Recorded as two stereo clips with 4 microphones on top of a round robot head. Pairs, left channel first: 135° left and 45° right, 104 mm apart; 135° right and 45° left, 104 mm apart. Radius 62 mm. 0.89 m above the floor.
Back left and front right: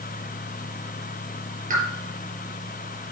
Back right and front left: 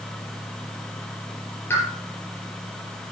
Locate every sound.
1.7 s a pop: 60° right, 4.5 m